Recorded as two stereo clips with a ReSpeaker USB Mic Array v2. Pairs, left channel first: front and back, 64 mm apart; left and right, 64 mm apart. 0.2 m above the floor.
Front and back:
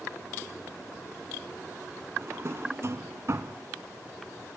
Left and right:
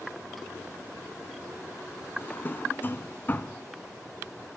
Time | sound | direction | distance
2.2 | a drawer | 145° left | 0.8 m